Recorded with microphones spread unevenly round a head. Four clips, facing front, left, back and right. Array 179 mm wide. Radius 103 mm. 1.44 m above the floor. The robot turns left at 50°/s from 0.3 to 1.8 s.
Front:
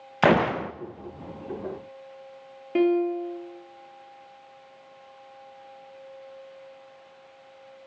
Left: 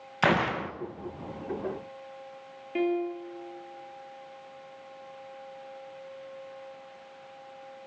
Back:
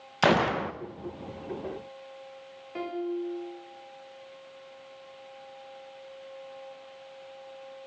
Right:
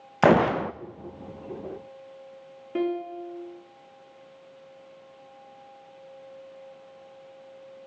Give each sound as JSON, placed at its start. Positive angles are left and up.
{"t": 0.2, "sound": "a gunshot", "azimuth_deg": -70, "distance_m": 0.8}
{"t": 2.8, "sound": "a piano", "azimuth_deg": -25, "distance_m": 3.0}